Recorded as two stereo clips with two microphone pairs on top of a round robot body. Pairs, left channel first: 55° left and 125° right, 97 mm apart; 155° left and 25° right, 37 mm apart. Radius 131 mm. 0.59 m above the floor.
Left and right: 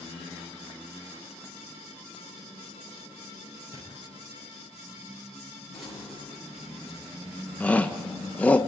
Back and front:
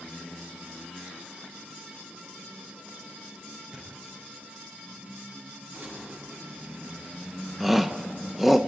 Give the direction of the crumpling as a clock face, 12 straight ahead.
1 o'clock.